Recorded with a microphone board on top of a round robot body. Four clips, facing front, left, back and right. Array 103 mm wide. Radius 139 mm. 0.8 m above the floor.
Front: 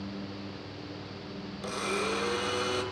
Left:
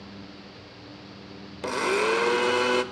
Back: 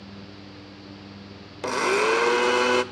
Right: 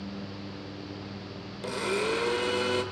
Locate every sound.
1.6 s a blender: 155° left, 0.6 m